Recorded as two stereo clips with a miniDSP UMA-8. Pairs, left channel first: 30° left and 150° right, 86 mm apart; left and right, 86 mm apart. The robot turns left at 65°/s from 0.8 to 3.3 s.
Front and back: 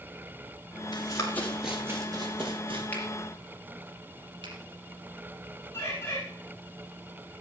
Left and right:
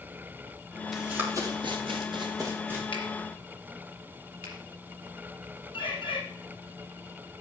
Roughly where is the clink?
No clink in this recording.